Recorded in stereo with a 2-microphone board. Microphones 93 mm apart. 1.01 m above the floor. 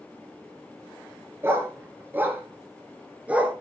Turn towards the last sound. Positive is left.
turn(degrees=-15)  # may be behind; listen again after turning